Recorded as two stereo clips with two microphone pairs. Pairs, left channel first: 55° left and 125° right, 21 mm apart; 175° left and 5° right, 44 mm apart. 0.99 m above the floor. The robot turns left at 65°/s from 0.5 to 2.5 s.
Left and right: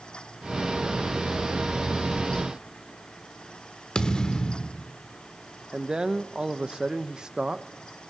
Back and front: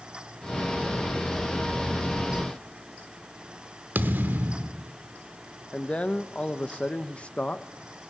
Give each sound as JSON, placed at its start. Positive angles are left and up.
{"t": 4.0, "sound": "a thud", "azimuth_deg": 15, "distance_m": 1.0}
{"t": 5.7, "sound": "a man speaking", "azimuth_deg": -140, "distance_m": 0.9}